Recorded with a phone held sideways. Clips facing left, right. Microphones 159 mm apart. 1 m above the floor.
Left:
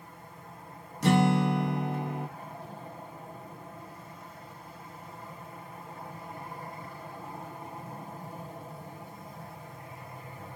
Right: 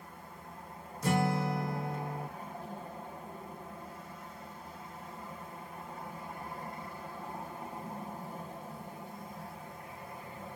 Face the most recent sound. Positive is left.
turn(degrees=75)  # may be behind; listen again after turning